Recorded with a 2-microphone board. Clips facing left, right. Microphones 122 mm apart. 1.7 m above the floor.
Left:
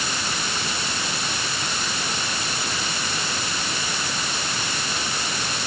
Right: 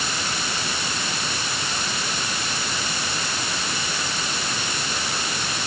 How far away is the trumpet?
I don't hear a trumpet.